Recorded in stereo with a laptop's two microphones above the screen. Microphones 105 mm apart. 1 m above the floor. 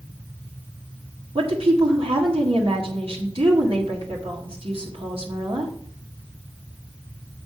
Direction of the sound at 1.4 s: 60° right (ahead or behind).